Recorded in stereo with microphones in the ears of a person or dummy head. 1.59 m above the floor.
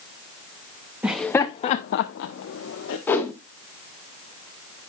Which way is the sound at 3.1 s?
15° left (ahead or behind).